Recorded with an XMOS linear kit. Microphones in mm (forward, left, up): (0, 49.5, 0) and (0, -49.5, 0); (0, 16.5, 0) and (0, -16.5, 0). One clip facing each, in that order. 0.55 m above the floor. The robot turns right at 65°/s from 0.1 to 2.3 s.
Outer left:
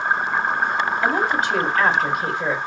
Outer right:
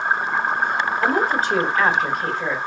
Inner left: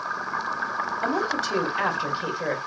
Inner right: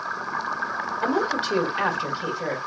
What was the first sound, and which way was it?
A woman speaking, 65° right.